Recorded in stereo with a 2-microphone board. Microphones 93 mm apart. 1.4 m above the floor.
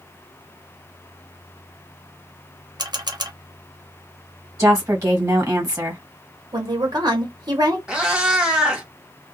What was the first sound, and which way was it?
A camera shutter, 50° right (ahead or behind).